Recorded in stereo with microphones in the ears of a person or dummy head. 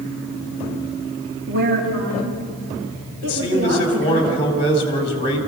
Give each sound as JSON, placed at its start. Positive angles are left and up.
{"t": 1.5, "sound": "a woman speaking", "side_deg": -45, "distance_m": 1.8}
{"t": 3.2, "sound": "a man speaking", "side_deg": 30, "distance_m": 3.5}